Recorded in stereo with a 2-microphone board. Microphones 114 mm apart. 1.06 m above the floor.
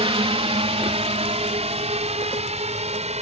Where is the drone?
60° right (ahead or behind); by 3.2 s 80° right.